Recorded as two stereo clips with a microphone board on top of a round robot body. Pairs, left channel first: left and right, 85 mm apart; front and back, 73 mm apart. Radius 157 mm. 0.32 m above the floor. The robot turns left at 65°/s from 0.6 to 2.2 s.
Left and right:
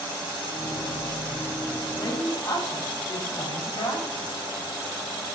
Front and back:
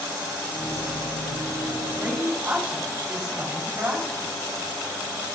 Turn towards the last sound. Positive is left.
turn(degrees=125)